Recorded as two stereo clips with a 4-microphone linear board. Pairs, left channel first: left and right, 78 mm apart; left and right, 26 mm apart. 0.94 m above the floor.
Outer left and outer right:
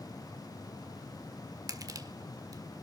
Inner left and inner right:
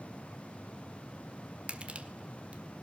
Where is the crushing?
50° right (ahead or behind), 1.5 m.